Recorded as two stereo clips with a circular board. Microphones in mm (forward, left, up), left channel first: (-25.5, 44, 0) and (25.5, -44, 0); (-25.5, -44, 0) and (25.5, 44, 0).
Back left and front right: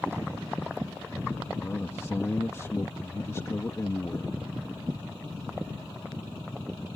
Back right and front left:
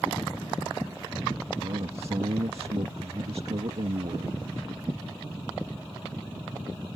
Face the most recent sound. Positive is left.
turn(degrees=60)